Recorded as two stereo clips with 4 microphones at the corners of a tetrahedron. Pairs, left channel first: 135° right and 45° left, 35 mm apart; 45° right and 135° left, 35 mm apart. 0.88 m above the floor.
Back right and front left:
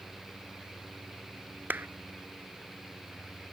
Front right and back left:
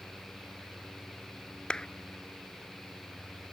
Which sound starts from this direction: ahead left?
A clap, at 1.7 s.